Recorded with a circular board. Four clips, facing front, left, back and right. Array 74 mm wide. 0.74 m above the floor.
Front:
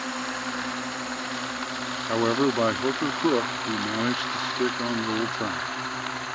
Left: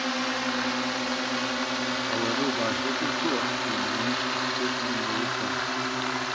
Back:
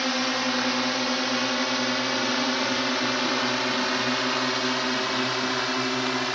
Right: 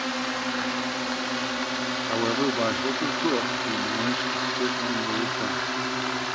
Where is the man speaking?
15° right.